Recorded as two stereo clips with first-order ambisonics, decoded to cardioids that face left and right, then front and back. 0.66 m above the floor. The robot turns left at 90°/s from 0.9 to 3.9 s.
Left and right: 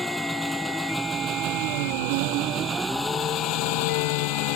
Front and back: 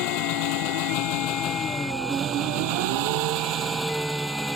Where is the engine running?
5° left; by 4.6 s 95° left.